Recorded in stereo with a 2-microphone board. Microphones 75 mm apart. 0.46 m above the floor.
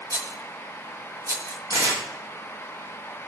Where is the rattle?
45° right (ahead or behind), 1.8 m.